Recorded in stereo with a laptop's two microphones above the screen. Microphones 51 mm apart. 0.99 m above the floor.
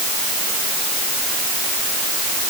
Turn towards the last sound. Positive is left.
No sound to turn to.